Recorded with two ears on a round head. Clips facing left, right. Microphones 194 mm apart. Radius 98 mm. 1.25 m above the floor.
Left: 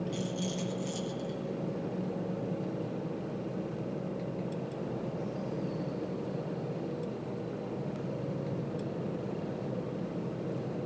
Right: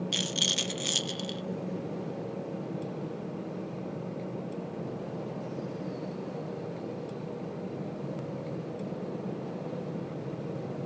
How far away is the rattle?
About 0.6 m.